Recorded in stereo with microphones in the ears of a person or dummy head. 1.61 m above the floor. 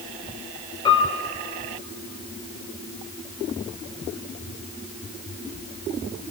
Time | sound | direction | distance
0.8 | a piano | 25° left (ahead or behind) | 3.5 m